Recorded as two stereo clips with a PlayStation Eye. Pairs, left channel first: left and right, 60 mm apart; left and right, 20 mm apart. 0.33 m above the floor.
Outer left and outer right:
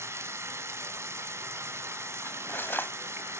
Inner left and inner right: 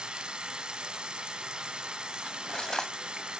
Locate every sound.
0.0 s running water: 55° right (ahead or behind), 1.8 m
2.2 s cutlery clinking: 40° left (ahead or behind), 1.2 m